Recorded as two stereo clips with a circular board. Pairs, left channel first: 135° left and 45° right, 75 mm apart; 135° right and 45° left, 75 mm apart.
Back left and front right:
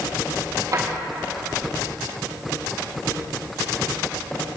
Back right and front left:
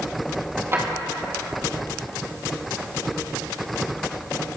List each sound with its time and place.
0.7 s a drawer: 10° right, 4 m